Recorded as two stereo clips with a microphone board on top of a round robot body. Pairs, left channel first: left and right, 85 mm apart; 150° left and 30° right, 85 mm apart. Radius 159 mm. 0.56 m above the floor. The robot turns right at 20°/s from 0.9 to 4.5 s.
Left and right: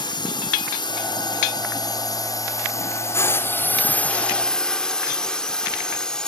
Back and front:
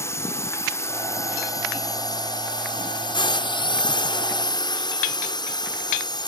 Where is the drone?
95° left; by 6.3 s 170° left.